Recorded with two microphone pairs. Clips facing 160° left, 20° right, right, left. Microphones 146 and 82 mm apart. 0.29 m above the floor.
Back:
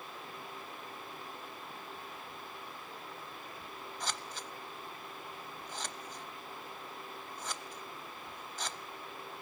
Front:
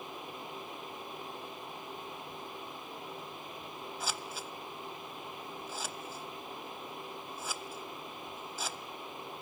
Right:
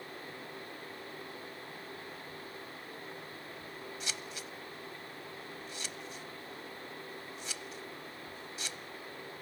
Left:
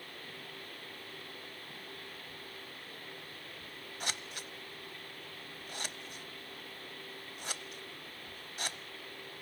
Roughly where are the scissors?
Ahead left.